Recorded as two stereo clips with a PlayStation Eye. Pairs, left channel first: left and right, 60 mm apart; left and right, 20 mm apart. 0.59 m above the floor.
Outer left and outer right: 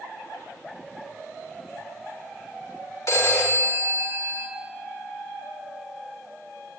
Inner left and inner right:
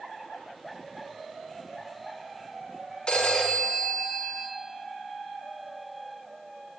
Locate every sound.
3.1 s a phone ringing: 55° left (ahead or behind), 1.4 m